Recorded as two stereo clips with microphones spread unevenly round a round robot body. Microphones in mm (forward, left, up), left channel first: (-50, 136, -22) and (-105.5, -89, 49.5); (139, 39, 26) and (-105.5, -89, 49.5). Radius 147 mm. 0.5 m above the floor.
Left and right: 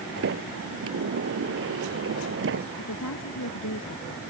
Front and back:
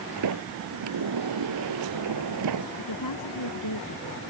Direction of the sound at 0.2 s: 130° right.